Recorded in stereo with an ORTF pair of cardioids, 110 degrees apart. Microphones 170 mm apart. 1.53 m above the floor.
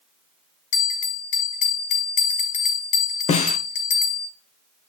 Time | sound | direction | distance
0.7 | a bell | 50° left | 3 m
3.3 | a snare drum | 45° left | 1.4 m